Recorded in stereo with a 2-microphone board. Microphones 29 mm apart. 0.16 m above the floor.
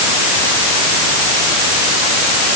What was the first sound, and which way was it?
Only background noise.